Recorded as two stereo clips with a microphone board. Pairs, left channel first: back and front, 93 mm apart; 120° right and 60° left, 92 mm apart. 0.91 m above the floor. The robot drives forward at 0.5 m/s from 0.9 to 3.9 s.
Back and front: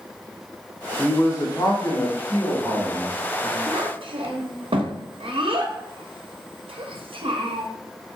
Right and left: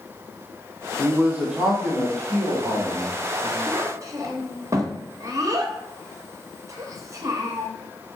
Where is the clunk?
No clunk in this recording.